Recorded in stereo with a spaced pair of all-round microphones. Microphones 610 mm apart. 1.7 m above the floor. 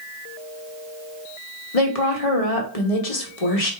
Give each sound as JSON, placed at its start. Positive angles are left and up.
{"t": 1.7, "sound": "a woman speaking", "side_deg": 65, "distance_m": 1.1}